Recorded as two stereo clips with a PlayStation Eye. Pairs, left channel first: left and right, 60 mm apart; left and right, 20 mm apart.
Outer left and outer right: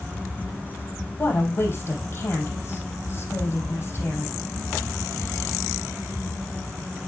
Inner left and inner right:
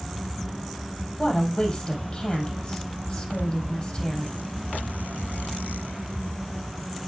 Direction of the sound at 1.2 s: 40° left (ahead or behind).